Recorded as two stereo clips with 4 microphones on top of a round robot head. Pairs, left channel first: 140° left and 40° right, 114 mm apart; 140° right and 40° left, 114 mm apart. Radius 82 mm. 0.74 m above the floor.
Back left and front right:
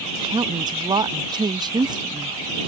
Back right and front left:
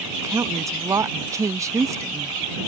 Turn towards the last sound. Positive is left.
turn(degrees=-10)